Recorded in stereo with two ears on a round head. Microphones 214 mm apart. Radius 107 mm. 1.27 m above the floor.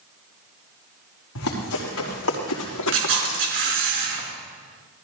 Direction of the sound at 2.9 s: 55° right (ahead or behind).